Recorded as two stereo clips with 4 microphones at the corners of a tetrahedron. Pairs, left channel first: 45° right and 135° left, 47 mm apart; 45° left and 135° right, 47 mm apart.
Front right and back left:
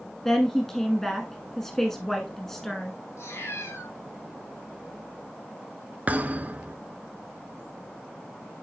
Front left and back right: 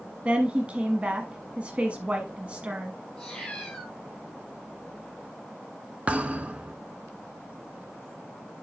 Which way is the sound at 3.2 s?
30° right.